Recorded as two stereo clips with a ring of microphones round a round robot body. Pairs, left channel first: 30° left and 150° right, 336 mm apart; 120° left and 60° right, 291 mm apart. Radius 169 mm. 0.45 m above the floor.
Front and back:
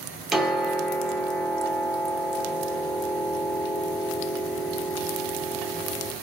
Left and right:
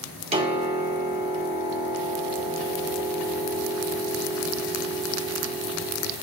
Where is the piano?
65° right, 1.2 m.